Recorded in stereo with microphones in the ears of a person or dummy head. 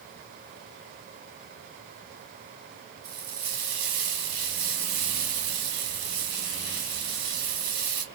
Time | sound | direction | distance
3.0 | frying | 60° right (ahead or behind) | 3 m